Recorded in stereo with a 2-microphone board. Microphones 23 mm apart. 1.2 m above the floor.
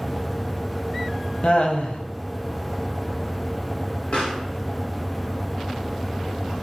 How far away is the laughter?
About 0.8 m.